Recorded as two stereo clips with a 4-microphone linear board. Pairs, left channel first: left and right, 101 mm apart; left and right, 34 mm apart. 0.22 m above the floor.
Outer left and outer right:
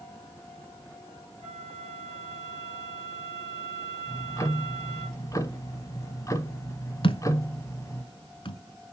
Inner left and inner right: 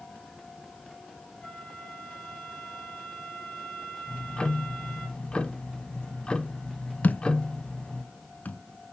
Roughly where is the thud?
Left.